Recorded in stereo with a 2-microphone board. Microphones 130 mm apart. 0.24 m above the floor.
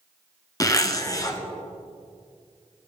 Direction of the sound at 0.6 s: 25° left (ahead or behind).